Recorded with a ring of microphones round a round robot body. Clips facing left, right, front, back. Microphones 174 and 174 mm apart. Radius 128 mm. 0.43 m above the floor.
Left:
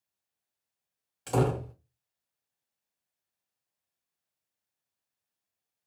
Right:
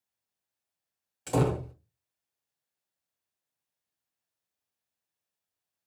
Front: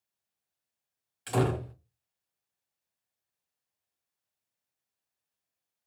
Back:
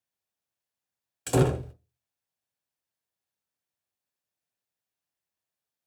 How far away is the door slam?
About 0.6 m.